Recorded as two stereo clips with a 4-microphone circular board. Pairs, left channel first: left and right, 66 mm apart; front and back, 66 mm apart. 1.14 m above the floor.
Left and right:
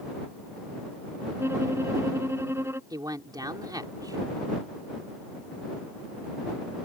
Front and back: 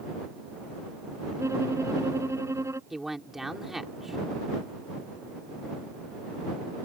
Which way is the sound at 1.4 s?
140° right.